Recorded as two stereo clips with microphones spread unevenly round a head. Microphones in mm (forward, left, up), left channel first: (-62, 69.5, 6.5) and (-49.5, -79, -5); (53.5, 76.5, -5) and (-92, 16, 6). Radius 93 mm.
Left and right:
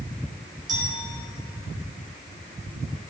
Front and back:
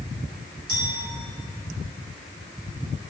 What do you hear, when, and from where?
0.7 s a clink: 115° right, 5.5 m